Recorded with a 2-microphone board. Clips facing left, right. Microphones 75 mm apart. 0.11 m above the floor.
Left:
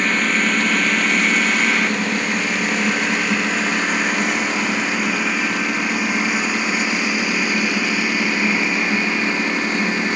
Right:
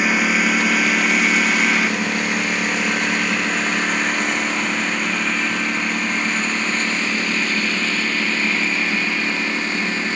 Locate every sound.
0.0 s a lawn mower: 10° right (ahead or behind); by 10.2 s 15° left (ahead or behind)